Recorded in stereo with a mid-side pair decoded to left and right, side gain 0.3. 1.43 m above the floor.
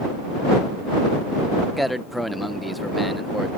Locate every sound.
1.8 s a man speaking: straight ahead